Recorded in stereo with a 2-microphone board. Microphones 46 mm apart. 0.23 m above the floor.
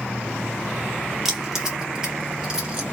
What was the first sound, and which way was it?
Keys jangling, 5° right (ahead or behind).